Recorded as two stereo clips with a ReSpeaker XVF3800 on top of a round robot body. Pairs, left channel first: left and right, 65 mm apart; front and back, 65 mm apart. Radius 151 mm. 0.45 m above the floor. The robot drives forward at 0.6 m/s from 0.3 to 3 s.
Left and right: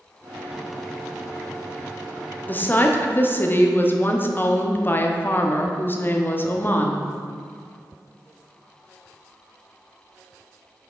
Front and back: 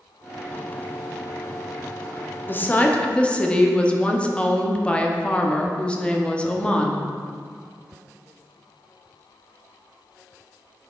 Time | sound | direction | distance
2.5 | a woman speaking | 40° left | 1.1 m